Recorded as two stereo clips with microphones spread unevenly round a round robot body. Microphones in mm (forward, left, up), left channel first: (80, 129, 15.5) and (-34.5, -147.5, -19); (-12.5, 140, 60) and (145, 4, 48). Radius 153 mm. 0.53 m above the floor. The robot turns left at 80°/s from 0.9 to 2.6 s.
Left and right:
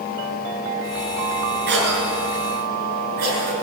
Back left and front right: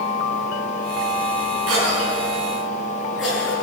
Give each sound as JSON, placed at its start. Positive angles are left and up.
{"t": 1.7, "sound": "a cough", "azimuth_deg": -55, "distance_m": 7.0}